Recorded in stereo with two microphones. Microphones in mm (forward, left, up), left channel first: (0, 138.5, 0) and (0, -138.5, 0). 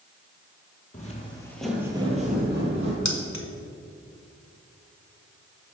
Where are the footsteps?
30° left (ahead or behind), 1.2 m; by 3.0 s 45° right (ahead or behind), 1.4 m.